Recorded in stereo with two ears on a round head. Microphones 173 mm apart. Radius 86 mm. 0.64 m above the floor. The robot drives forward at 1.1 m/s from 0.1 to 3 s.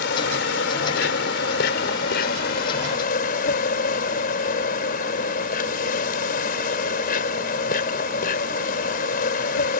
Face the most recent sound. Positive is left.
turn(degrees=50)  # may be behind; listen again after turning